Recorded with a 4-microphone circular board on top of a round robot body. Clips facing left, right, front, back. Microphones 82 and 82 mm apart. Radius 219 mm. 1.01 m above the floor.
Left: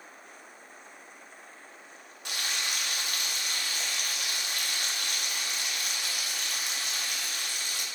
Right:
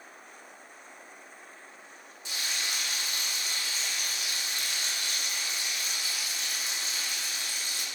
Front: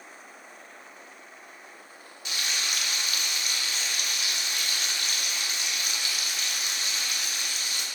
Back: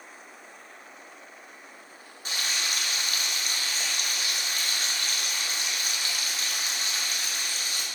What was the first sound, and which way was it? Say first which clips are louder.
Frying: left 2 dB, back 1 dB; 125° left.